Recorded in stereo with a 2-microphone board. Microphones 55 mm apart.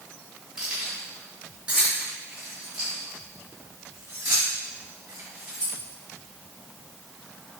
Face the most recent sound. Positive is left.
turn(degrees=-40)  # may be behind; listen again after turning